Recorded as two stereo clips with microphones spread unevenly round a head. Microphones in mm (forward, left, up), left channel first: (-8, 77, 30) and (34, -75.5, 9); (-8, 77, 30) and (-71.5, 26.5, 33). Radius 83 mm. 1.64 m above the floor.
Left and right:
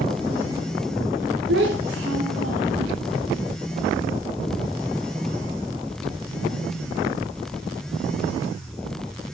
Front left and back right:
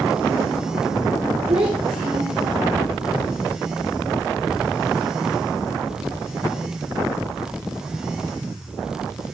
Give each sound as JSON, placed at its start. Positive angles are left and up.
{"t": 1.5, "sound": "a child speaking", "azimuth_deg": -100, "distance_m": 3.0}